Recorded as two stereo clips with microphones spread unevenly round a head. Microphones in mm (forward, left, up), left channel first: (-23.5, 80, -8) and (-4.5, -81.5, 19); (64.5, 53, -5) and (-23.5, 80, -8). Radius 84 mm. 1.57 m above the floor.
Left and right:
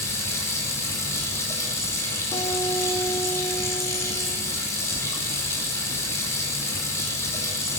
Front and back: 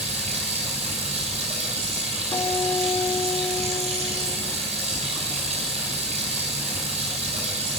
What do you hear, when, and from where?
0.0 s running water: 170° left, 8.5 m
2.3 s a guitar: 30° left, 4.5 m